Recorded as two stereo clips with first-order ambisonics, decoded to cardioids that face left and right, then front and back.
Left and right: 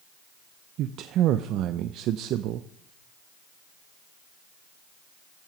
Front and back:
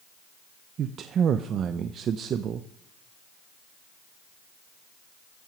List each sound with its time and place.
0.8 s a man speaking: 125° right, 0.5 m